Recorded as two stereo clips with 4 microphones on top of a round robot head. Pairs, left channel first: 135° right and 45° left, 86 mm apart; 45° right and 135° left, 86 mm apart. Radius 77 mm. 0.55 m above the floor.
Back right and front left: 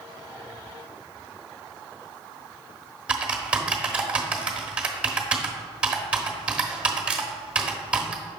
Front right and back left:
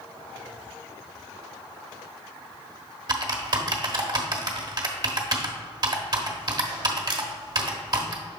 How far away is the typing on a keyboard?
About 1.1 m.